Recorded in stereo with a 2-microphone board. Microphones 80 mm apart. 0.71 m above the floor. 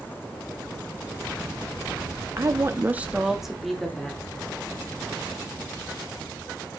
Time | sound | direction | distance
2.4 | a woman speaking | 35° right (ahead or behind) | 0.6 m